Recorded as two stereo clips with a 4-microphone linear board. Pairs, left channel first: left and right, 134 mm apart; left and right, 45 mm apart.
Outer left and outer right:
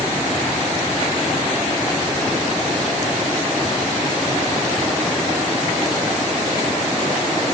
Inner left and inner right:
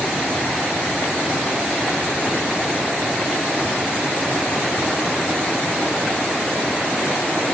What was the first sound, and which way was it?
Only background noise.